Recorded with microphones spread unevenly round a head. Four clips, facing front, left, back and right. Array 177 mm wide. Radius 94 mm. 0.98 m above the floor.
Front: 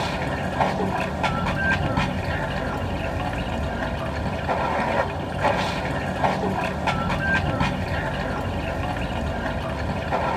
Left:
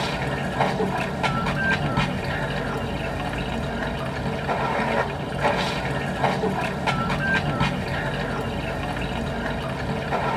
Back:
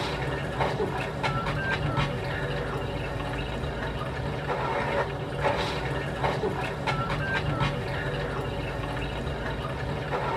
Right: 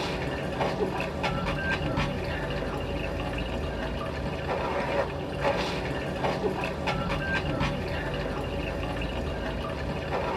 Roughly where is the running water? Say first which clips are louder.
Left 4 dB, front 5 dB; ahead left.